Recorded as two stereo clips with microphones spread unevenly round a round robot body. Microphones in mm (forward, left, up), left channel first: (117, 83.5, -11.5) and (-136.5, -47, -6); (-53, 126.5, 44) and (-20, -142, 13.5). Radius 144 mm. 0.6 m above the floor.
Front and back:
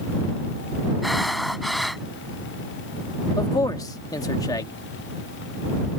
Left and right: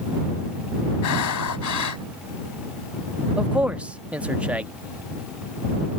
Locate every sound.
1.0 s breathing: 115° left
3.4 s a man speaking: 25° right